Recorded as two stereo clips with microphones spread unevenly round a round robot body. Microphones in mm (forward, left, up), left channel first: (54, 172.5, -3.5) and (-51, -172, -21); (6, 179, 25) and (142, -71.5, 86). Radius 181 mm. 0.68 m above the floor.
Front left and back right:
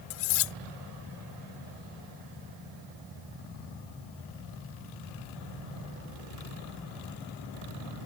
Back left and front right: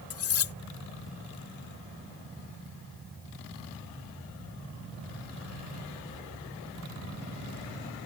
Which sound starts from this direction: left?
Cutlery clinking, at 0.1 s.